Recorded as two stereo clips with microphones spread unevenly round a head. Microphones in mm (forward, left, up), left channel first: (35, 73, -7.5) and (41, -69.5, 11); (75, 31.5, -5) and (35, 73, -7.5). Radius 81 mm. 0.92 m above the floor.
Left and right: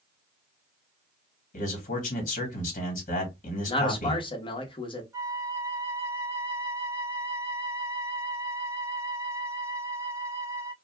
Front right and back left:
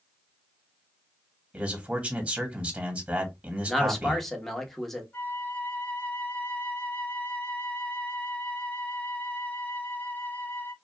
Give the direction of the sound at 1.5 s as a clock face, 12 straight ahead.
10 o'clock.